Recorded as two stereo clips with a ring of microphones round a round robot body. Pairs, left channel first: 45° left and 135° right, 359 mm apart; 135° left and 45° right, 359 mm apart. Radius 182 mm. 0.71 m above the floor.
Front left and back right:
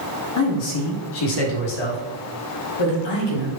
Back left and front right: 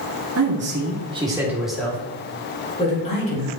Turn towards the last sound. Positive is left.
turn(degrees=65)